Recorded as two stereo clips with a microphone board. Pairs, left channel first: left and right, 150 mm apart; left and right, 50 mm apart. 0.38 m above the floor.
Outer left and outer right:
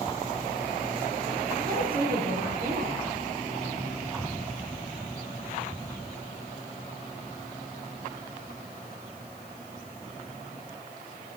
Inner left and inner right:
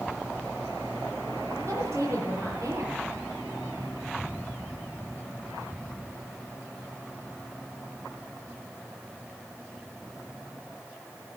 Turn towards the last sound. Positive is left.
turn(degrees=-80)